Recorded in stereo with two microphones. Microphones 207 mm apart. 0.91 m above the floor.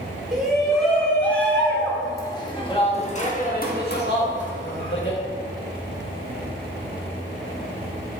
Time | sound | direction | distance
0.3 | a shout | centre (ahead or behind) | 3 m